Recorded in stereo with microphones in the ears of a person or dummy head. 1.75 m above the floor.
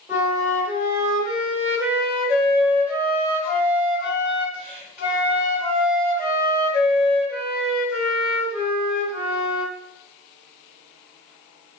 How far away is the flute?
About 1.7 m.